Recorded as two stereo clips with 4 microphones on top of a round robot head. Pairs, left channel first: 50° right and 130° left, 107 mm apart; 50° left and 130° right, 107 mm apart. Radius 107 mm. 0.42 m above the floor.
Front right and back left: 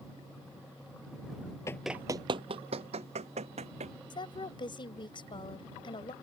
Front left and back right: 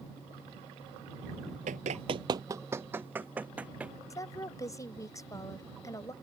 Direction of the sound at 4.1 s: 10° right.